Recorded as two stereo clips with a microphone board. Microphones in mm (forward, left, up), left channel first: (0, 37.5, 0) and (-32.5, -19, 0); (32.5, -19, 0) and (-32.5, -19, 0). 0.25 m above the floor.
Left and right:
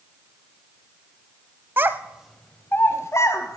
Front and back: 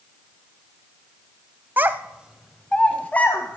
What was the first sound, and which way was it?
A child speaking, 140° right.